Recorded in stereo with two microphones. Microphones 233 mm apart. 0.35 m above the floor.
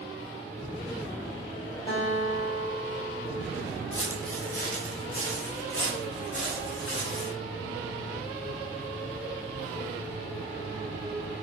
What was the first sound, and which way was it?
A guitar, 20° left (ahead or behind).